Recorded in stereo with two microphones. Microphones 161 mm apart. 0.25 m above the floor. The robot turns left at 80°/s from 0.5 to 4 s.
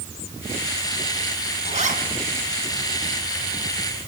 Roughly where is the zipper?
Right.